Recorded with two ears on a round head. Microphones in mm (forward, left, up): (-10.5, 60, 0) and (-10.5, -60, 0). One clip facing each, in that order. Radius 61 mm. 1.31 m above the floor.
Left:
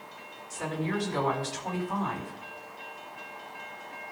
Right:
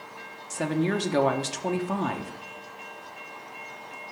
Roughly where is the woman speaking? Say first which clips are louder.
Right 6 dB; right.